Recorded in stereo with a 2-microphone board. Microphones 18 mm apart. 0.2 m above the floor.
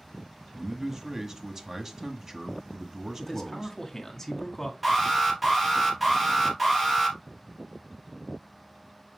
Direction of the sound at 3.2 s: 15° left (ahead or behind).